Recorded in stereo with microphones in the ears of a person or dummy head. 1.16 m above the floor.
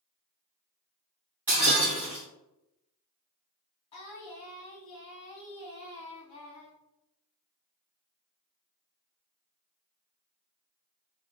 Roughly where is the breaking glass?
Centre.